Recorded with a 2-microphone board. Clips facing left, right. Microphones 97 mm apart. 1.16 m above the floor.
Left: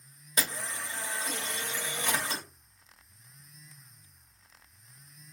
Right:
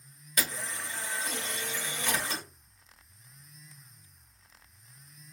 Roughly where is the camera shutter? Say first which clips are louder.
Even; left.